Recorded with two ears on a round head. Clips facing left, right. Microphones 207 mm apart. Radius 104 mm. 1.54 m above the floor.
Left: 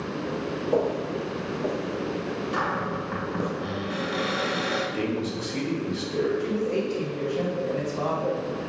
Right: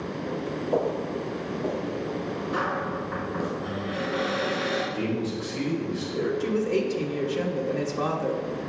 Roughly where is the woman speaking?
Right.